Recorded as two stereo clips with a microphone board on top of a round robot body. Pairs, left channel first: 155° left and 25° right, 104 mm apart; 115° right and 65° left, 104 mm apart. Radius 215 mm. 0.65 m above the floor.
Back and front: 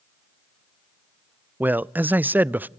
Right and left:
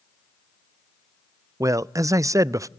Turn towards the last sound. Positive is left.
turn(degrees=40)